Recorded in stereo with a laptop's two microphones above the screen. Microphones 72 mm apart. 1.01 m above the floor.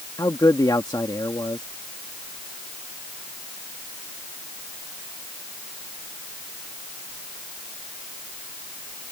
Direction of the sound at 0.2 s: 65° left (ahead or behind).